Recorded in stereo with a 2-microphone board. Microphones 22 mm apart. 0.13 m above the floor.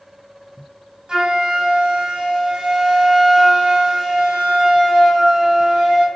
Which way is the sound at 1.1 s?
50° right (ahead or behind).